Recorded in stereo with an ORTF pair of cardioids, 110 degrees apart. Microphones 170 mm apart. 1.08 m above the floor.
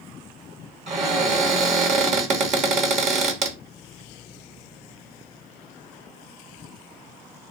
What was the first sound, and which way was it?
A cupboard door, 45° right.